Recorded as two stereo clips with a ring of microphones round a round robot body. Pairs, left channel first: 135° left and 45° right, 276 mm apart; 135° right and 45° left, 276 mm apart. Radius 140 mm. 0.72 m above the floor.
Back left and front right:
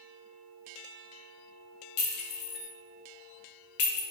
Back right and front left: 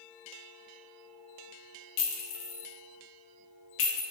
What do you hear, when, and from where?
2.0 s a clink: 175° right, 0.6 m